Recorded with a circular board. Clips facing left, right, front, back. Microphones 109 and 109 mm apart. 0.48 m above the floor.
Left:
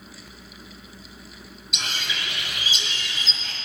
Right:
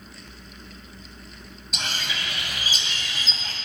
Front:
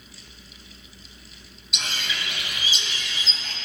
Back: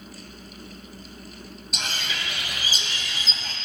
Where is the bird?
135° right, 2 m.